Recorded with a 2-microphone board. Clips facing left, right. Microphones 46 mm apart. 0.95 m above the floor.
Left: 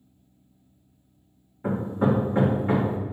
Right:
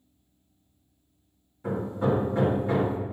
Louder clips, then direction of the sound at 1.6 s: Left 3 dB; 30° left (ahead or behind).